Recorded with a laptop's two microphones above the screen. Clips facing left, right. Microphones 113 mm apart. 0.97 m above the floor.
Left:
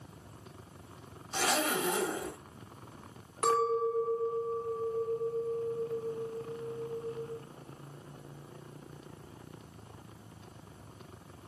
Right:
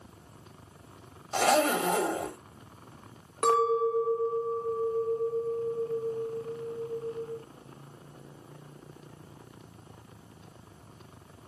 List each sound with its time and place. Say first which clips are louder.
1.3 s a zipper: right 7 dB; 70° right (ahead or behind), 1.3 m
3.4 s a clink: right 4 dB; 65° right (ahead or behind), 0.7 m